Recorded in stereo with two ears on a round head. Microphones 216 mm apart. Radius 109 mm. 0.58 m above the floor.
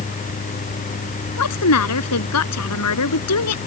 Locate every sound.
1.4 s a woman speaking: 75° left (ahead or behind)